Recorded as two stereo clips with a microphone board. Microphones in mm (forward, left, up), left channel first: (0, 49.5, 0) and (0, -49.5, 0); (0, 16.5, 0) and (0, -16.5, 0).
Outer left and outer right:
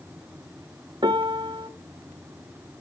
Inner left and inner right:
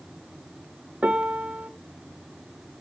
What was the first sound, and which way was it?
A piano, 50° right (ahead or behind).